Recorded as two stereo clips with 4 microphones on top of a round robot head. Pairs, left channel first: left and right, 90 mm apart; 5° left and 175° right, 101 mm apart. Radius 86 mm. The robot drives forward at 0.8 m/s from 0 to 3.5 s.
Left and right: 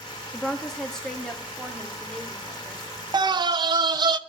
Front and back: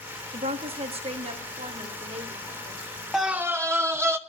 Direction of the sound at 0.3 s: 175° left.